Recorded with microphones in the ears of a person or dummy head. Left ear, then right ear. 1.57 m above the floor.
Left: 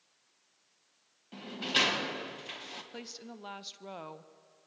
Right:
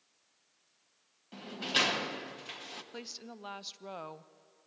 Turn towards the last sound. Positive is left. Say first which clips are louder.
# even
turn(degrees=-15)  # may be behind; listen again after turning